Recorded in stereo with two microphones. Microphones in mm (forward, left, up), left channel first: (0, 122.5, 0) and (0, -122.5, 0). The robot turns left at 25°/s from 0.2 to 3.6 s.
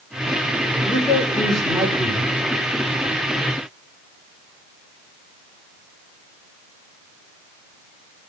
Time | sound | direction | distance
0.8 | a man speaking | 20° left | 5 m